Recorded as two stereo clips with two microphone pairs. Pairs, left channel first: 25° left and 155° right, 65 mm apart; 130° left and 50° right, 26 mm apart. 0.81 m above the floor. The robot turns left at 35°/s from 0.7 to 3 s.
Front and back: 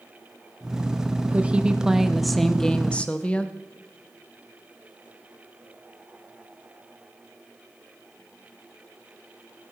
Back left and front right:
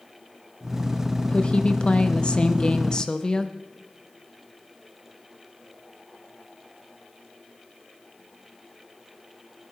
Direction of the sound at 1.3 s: 150° left.